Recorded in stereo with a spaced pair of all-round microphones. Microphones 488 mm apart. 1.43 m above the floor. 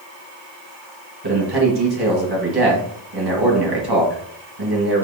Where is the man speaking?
50° right (ahead or behind), 1.5 m.